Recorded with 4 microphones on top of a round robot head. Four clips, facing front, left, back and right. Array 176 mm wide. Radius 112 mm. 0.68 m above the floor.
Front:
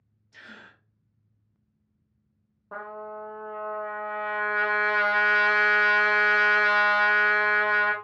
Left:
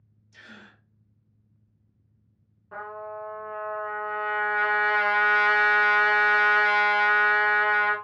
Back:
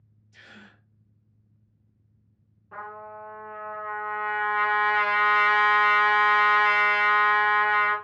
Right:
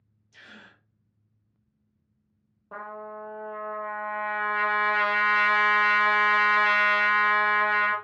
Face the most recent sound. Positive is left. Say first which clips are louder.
# left 2 dB, front 2 dB
turn(degrees=-40)